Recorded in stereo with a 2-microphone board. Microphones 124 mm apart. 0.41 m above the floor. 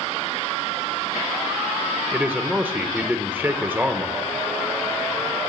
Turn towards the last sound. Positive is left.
turn(degrees=-15)  # may be behind; listen again after turning